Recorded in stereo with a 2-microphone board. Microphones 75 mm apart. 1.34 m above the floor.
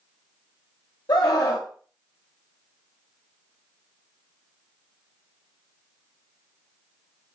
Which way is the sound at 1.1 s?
80° left.